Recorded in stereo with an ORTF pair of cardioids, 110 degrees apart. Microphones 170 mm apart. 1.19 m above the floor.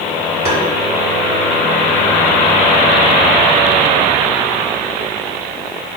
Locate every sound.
0.5 s tapping: 15° right, 1.9 m